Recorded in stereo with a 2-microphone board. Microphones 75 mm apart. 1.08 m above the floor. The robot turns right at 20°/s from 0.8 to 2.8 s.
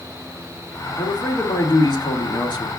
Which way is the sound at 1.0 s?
60° left.